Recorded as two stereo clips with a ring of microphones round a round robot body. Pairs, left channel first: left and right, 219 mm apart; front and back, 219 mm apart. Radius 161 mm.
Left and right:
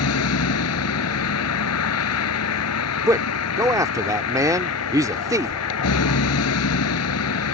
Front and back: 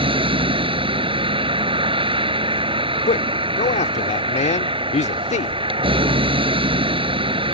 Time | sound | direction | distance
0.0 | a vehicle | 115° left | ?
3.1 | a man speaking | 25° right | ?